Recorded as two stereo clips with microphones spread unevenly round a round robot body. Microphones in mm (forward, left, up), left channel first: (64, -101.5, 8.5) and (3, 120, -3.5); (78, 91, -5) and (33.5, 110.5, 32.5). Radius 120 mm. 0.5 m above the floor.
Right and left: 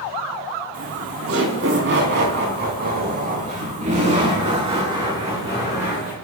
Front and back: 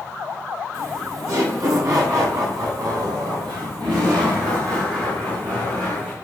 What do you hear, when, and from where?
0.7 s laughter: 140° left, 4.5 m; by 6.1 s 175° right, 5.5 m